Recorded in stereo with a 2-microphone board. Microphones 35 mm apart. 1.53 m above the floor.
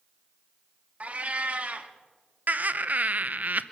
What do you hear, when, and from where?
1.0 s a cat meowing: 40° right (ahead or behind), 1.2 m
2.5 s laughter: 50° right (ahead or behind), 0.8 m